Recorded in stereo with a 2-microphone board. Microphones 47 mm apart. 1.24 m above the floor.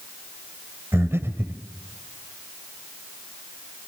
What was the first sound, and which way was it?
Breathing, 65° right (ahead or behind).